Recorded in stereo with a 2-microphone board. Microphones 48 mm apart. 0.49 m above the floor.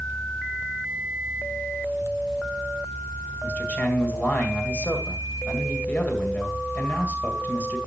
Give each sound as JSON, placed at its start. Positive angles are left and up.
{"t": 3.4, "sound": "a man speaking", "side_deg": 40, "distance_m": 2.5}